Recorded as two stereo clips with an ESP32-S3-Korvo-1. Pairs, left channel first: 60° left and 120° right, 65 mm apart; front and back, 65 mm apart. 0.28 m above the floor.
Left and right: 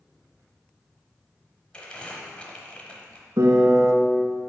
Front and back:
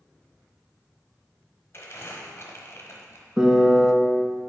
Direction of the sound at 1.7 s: 5° right.